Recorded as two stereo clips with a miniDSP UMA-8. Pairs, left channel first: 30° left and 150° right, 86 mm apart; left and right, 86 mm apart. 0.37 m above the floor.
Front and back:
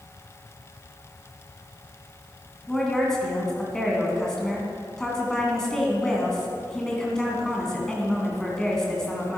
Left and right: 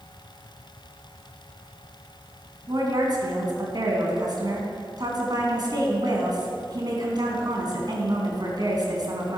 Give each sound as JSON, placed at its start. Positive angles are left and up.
{"t": 2.7, "sound": "a woman speaking", "azimuth_deg": -55, "distance_m": 3.0}